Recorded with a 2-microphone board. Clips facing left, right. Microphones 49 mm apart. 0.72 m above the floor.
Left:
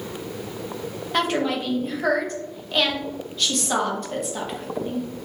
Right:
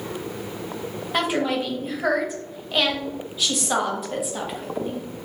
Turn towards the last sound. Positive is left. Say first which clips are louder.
# even
turn(degrees=-5)  # may be behind; listen again after turning